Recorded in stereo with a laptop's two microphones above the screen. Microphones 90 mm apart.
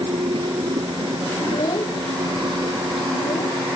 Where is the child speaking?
65° left (ahead or behind).